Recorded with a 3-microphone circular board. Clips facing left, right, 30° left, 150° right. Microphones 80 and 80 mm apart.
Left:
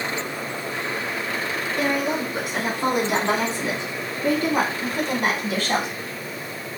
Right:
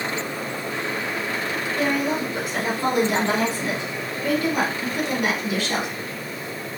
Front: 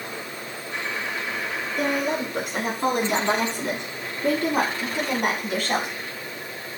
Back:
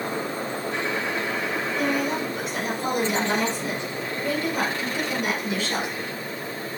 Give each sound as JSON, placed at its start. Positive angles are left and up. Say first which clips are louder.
{"t": 1.8, "sound": "a woman speaking", "louder": "even, front 2 dB", "azimuth_deg": 20, "distance_m": 4.5}